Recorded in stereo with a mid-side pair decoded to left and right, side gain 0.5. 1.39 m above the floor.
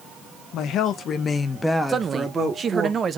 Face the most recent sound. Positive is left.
turn(degrees=-40)